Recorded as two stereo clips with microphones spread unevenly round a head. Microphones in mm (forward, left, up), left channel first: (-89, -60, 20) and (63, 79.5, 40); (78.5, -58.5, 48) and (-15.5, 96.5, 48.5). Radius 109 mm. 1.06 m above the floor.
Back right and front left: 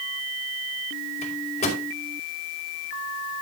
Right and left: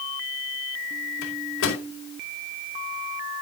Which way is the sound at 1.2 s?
75° right.